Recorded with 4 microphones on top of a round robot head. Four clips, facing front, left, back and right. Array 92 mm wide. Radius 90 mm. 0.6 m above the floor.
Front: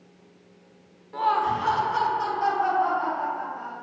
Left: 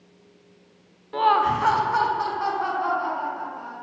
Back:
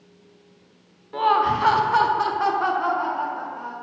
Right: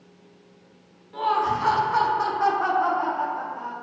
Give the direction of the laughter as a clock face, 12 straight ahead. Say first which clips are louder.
Left 3 dB, back 4 dB; 8 o'clock.